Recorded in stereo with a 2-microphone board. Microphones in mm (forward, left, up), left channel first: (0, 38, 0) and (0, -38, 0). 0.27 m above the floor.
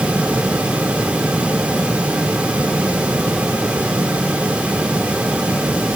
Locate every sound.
Only background noise.